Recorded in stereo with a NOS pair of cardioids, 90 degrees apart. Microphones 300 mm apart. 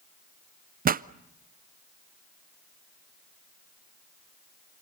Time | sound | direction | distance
0.8 | a pop | 30° right | 0.5 m